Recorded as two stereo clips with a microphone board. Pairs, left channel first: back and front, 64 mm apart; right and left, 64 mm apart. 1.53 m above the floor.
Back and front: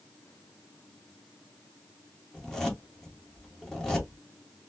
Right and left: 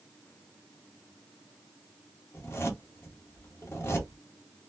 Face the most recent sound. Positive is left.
turn(degrees=-100)